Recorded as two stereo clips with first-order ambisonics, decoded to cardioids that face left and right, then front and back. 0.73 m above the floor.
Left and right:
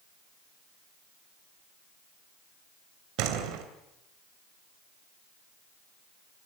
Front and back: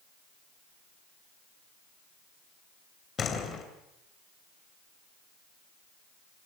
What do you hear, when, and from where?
3.2 s a door slam: 65° right, 3 m